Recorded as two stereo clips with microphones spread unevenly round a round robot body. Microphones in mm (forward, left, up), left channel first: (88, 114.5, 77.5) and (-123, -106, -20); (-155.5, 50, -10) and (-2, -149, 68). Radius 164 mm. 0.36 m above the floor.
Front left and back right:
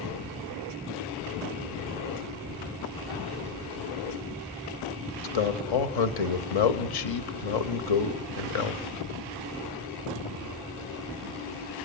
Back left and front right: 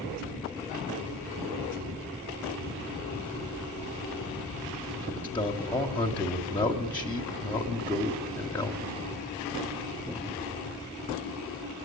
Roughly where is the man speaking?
Ahead left.